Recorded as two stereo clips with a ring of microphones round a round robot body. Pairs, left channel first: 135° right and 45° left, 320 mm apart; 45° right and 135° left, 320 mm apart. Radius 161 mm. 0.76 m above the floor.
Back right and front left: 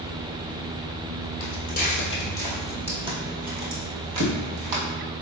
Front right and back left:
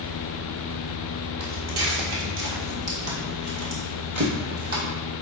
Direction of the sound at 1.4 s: 170° left.